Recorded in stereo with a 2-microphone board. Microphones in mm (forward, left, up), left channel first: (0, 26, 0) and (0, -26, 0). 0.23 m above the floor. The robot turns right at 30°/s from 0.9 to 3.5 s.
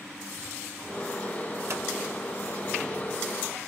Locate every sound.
1.7 s scissors: 70° right (ahead or behind), 1.1 m